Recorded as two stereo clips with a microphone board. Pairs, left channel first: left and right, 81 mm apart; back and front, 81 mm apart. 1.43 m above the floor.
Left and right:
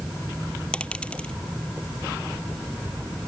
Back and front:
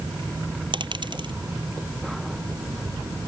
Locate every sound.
0.7 s a dropped coin: 10° left